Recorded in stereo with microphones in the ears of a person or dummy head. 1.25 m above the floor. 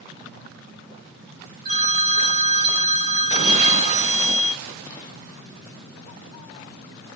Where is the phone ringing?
40° right (ahead or behind), 0.6 m.